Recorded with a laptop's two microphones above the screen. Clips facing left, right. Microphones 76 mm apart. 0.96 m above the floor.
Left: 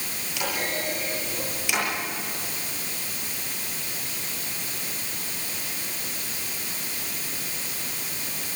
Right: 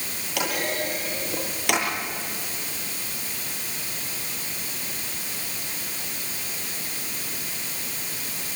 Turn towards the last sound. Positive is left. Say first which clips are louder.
# right 2 dB
turn(degrees=-60)  # may be behind; listen again after turning